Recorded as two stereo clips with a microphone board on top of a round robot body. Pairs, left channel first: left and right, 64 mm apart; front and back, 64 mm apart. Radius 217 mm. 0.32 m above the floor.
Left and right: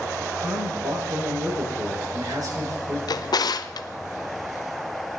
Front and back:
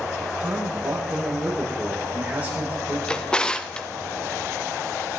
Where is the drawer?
75° left, 0.6 m.